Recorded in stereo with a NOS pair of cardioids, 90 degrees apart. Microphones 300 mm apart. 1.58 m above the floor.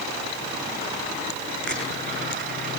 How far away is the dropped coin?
About 8 m.